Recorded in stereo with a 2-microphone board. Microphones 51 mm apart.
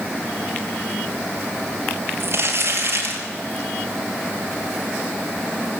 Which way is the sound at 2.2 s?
50° right (ahead or behind).